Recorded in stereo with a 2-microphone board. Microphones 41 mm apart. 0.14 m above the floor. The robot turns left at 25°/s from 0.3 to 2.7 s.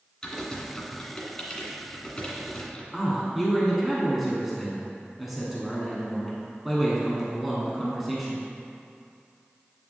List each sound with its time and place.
0.2 s typing on a keyboard: 15° left (ahead or behind), 1.8 m; by 2.8 s 20° left (ahead or behind), 1.8 m
2.9 s a man speaking: 5° right (ahead or behind), 1.0 m